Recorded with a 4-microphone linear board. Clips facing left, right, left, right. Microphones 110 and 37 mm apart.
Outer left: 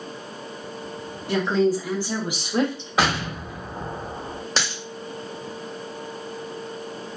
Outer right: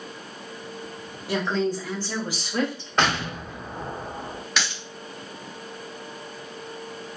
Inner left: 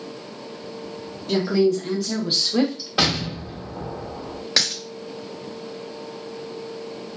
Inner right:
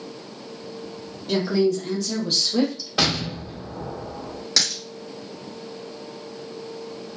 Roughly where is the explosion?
Centre.